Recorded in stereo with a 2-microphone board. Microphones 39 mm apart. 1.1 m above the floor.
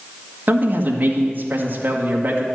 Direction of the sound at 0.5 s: 45° right (ahead or behind).